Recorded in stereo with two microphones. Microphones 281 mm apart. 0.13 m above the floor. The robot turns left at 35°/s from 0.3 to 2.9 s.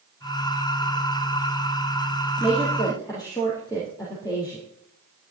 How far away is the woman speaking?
About 3.5 m.